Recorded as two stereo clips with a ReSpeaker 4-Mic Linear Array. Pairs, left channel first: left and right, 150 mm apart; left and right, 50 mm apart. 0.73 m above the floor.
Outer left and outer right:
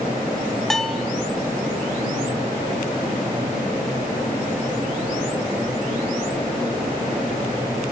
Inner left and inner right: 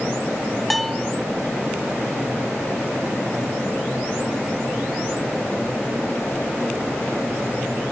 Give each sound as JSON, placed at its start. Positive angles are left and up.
{"t": 0.7, "sound": "a bell", "side_deg": 0, "distance_m": 0.6}